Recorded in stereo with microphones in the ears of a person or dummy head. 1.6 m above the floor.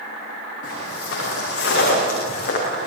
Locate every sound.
0.6 s footsteps: 65° left (ahead or behind), 9.5 m; by 2.9 s 45° left (ahead or behind), 9 m